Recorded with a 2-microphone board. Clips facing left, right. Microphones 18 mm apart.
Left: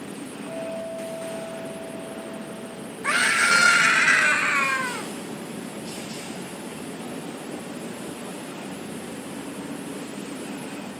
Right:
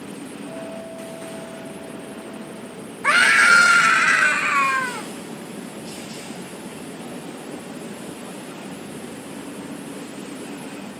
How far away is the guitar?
About 1.9 m.